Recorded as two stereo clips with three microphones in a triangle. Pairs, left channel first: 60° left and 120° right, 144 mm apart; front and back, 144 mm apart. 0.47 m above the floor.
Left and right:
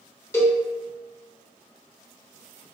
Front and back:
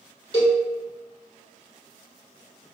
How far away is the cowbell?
About 1.2 m.